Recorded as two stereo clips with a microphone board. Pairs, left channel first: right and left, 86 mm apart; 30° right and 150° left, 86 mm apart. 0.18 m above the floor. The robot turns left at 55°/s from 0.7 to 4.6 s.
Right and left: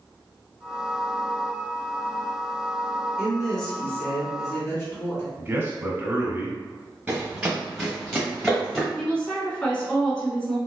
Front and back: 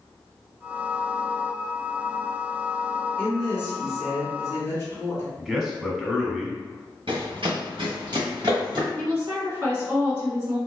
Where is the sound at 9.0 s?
165° right, 1.9 m.